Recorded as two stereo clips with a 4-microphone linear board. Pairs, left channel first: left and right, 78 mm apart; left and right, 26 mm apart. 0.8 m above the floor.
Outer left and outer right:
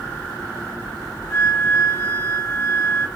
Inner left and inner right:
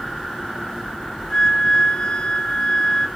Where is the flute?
35° left (ahead or behind), 1.0 m.